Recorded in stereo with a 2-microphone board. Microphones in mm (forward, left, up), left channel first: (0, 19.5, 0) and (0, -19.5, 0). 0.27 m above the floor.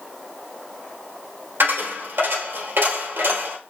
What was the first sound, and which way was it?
A dropped coin, 85° right.